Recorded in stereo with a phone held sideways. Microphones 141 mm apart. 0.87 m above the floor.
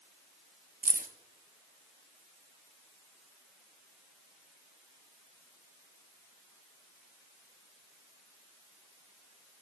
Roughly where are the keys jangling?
Right.